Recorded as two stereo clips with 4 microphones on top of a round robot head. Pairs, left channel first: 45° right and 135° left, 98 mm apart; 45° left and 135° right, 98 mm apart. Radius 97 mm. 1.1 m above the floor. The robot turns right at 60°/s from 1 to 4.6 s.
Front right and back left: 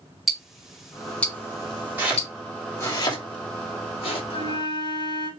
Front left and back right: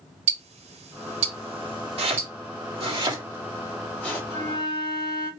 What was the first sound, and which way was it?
Ticking, 135° right.